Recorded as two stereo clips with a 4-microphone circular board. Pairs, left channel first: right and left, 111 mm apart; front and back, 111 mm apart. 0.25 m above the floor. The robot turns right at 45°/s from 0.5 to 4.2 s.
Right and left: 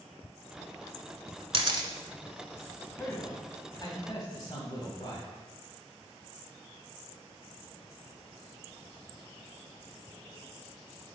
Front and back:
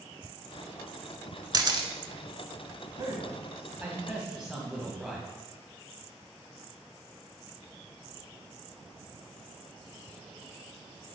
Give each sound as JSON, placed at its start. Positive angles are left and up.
{"t": 1.5, "sound": "a camera shutter", "azimuth_deg": 125, "distance_m": 0.7}
{"t": 3.0, "sound": "a man speaking", "azimuth_deg": -150, "distance_m": 1.8}